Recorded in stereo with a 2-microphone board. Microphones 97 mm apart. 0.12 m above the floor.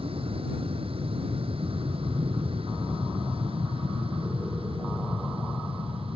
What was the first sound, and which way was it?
An aircraft, 75° right (ahead or behind).